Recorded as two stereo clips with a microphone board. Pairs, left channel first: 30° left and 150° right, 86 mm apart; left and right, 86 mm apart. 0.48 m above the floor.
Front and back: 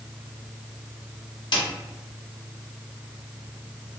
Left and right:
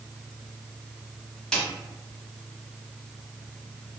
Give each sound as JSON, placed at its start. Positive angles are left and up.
{"t": 1.5, "sound": "a snare drum", "azimuth_deg": 10, "distance_m": 1.0}